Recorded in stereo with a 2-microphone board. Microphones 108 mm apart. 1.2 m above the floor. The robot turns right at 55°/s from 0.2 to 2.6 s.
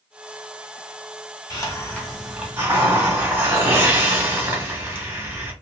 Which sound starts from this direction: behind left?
A hiss, at 1.5 s.